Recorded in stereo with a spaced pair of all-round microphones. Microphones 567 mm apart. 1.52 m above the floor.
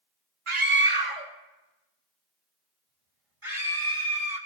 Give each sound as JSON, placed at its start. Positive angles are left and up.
{"t": 0.5, "sound": "a scream", "side_deg": -60, "distance_m": 1.3}